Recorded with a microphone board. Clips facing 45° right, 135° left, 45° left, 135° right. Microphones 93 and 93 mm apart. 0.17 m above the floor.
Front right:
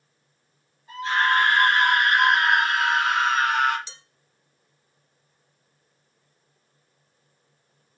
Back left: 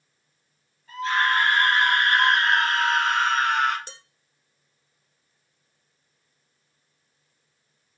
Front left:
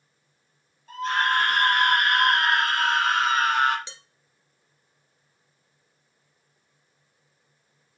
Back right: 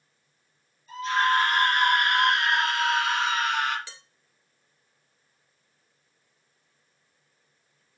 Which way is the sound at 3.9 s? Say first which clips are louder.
Back left 4 dB, front left 1 dB; 110° left.